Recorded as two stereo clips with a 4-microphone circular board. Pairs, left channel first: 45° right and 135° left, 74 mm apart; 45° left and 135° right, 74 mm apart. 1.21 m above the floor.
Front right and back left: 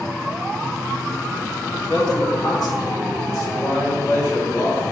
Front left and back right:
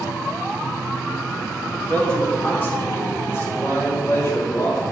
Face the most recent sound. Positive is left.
turn(degrees=0)